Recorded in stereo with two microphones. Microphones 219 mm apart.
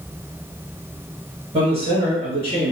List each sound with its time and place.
1.5 s a man speaking: 25° right (ahead or behind), 1.6 m; by 2.7 s 30° right (ahead or behind), 1.4 m